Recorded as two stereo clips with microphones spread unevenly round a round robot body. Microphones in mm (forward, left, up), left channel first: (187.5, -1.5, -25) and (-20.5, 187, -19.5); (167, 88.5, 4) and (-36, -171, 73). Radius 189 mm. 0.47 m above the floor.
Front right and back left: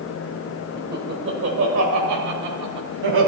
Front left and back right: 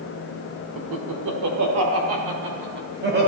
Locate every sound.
0.8 s laughter: 155° right, 1.5 m; by 3.3 s 165° left, 2 m